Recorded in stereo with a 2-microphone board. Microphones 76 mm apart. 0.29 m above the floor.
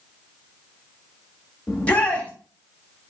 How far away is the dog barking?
I don't hear a dog barking.